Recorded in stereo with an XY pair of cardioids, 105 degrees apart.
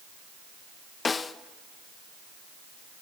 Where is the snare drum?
35° left, 0.6 m.